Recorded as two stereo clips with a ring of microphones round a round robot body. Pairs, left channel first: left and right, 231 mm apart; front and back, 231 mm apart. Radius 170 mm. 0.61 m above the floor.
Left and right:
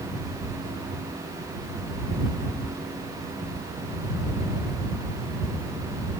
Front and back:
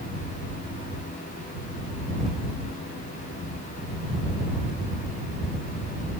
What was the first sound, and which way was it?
Only background noise.